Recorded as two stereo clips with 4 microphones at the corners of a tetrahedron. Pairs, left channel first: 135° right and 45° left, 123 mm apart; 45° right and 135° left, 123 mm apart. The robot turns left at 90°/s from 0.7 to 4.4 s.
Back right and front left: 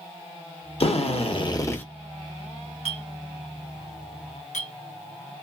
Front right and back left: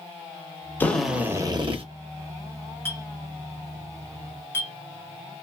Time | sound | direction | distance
0.8 | a drill | 115° right | 0.9 m
2.9 | a clink | 25° left | 1.2 m